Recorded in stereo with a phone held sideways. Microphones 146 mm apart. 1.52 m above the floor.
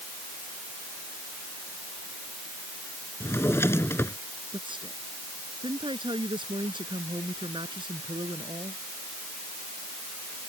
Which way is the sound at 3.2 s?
15° left (ahead or behind).